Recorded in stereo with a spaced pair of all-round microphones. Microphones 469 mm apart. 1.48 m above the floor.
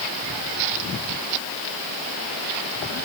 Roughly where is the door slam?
I don't hear a door slam.